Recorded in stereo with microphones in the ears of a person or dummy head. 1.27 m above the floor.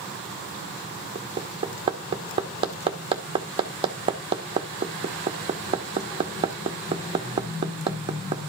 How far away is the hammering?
About 1.2 m.